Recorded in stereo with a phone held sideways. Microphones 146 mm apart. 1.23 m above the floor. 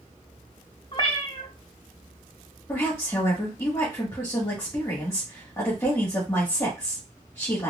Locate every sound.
0.9 s a cat meowing: 35° left (ahead or behind), 0.9 m
2.7 s a woman speaking: 20° left (ahead or behind), 1.9 m